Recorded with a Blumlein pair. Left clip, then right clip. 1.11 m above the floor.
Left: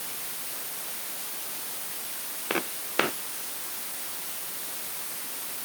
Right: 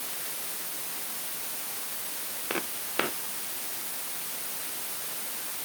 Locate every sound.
2.5 s footsteps: 10° left